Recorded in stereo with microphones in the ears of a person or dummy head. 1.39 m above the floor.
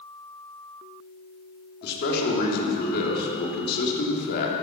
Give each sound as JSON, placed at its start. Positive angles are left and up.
{"t": 1.8, "sound": "a man speaking", "side_deg": 60, "distance_m": 3.5}